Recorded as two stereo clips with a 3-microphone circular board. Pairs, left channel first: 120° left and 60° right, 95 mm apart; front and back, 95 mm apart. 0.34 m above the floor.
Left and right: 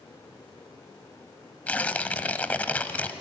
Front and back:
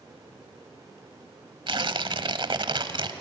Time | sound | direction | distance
1.7 | tearing paper | 170° right | 1.1 m